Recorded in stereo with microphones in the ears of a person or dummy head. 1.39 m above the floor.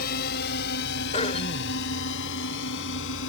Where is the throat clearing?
35° left (ahead or behind).